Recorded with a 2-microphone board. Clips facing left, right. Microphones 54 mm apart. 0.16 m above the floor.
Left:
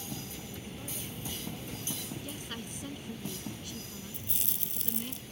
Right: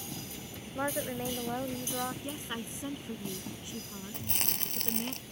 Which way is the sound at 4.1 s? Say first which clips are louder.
Right 5 dB; 60° right (ahead or behind).